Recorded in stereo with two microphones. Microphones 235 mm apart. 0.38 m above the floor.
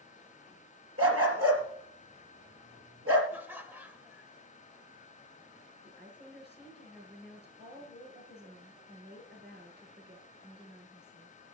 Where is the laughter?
10° right (ahead or behind), 1.5 m.